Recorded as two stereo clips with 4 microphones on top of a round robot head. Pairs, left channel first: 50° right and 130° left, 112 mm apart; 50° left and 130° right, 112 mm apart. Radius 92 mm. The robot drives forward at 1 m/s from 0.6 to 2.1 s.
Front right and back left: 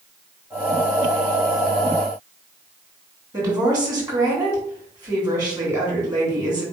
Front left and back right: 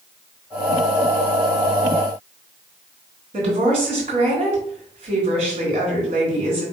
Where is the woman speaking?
170° right, 3.5 m.